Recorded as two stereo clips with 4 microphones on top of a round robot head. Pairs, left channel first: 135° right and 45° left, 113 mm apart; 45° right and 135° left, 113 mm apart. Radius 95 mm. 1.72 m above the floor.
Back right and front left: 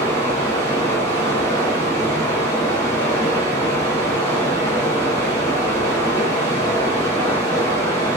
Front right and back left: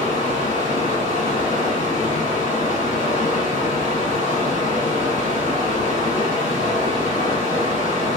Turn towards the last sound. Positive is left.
turn(degrees=-70)